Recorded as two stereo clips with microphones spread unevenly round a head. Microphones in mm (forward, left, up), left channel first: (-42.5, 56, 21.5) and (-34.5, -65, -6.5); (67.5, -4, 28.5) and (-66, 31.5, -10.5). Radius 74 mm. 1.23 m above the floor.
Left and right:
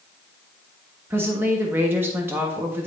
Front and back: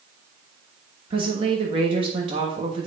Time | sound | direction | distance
1.1 | a woman speaking | 150° right | 1.3 m